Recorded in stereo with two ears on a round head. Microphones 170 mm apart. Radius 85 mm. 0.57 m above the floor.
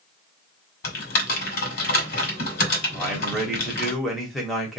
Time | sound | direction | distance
0.8 | typing on a keyboard | 50° left (ahead or behind) | 1.8 m
2.9 | a man speaking | centre (ahead or behind) | 1.0 m